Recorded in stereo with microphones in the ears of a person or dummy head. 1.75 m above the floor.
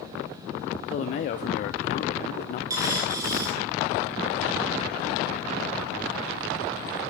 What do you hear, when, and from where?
0.9 s a man speaking: 50° left (ahead or behind), 0.6 m
2.7 s a dropped coin: 20° right (ahead or behind), 1.7 m